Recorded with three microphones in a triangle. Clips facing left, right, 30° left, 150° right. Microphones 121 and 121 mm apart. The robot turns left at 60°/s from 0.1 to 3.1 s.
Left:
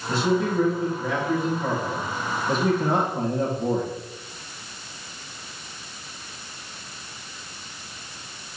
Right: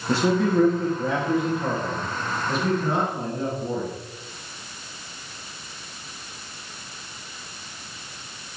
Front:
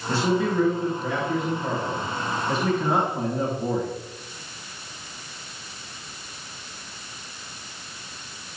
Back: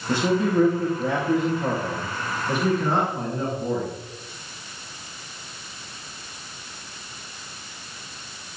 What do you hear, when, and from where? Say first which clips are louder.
0.1 s a man speaking: right 2 dB, back 2 dB; 75° right, 3 m; by 3.9 s 105° left, 3 m